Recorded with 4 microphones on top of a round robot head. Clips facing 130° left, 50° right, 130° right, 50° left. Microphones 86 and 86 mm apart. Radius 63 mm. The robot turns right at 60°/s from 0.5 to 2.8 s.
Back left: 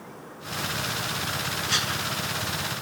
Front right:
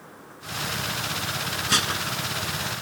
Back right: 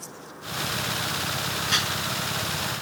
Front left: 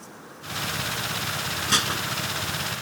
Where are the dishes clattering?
5° right; by 2.0 s 15° left.